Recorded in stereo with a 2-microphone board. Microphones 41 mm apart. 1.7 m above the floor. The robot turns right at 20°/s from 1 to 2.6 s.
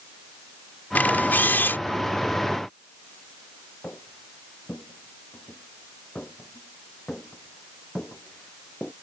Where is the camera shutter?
45° left (ahead or behind); by 1.8 s 60° left (ahead or behind).